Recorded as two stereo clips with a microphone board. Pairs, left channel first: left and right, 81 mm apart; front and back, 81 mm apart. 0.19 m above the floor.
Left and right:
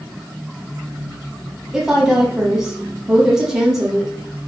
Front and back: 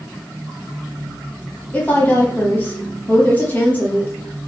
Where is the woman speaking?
15° right, 1.0 m.